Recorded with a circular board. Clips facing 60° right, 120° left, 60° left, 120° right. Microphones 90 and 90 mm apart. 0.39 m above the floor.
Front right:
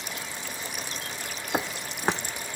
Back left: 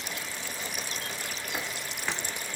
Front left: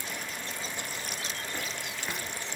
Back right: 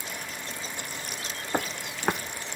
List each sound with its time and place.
1.5 s footsteps: 100° right, 1.2 m